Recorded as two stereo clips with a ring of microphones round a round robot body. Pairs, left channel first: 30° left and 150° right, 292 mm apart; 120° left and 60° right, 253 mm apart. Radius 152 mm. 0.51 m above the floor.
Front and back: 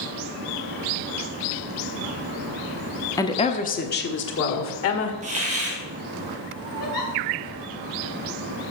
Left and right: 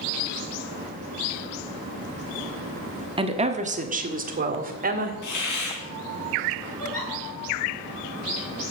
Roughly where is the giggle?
Ahead left.